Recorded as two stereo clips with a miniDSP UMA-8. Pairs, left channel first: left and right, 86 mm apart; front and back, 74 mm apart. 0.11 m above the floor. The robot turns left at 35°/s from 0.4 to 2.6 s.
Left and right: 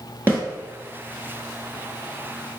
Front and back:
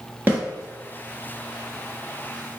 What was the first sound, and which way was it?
A snare drum, 135° right.